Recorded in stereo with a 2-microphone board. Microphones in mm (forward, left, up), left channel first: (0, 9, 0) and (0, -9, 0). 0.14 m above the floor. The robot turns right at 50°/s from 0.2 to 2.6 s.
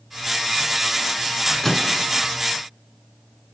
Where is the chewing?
I don't hear chewing.